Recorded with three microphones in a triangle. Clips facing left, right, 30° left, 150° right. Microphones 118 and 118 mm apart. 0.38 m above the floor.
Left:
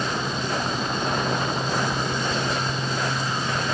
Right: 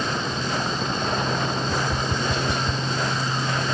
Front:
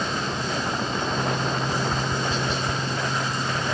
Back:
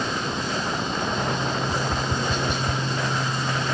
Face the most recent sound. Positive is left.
turn(degrees=-115)